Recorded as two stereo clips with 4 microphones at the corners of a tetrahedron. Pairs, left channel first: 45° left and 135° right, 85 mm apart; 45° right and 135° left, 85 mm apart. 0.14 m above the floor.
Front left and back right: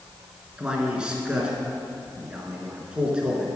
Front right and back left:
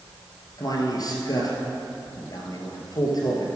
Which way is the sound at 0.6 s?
60° right.